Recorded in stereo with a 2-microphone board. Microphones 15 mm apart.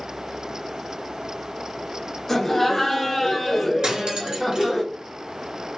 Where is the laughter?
15° left (ahead or behind), 1.1 m; by 4.8 s 5° right (ahead or behind), 1.0 m.